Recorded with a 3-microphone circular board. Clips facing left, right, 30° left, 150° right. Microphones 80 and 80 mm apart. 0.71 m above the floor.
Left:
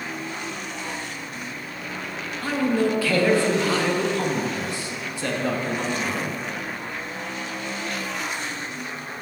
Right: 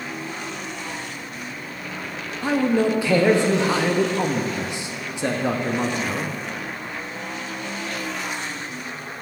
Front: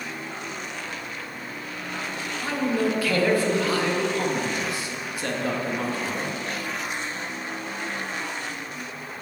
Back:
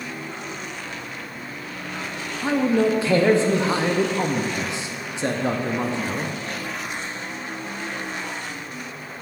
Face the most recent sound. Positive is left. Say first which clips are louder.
# right 3 dB, back 5 dB
turn(degrees=-135)